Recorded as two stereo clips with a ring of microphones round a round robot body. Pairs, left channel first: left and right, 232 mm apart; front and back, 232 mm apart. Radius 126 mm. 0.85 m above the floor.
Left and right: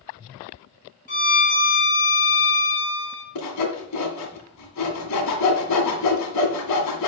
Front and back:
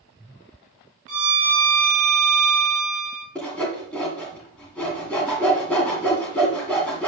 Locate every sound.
1.1 s a violin: 145° left, 2.5 m
3.4 s sawing: 85° left, 1.8 m